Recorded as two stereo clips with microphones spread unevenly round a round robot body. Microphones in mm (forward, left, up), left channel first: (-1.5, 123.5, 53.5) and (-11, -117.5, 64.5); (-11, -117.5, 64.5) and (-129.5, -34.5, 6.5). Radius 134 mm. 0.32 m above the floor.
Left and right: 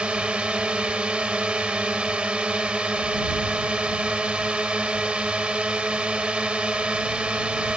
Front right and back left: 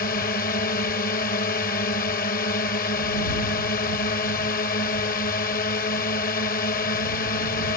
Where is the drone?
5° right.